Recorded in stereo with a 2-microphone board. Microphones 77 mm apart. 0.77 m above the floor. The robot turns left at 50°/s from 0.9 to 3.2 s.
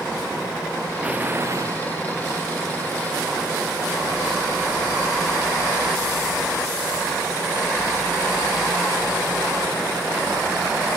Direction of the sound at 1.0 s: 15° right.